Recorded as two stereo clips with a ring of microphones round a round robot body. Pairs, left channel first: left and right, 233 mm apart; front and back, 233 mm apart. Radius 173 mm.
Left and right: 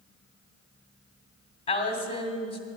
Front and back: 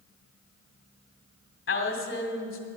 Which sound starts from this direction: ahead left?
A woman speaking, at 1.7 s.